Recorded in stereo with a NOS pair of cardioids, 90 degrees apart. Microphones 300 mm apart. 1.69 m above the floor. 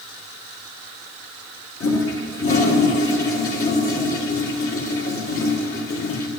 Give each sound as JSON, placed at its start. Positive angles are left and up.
{"t": 1.8, "sound": "a toilet flushing", "azimuth_deg": 45, "distance_m": 2.5}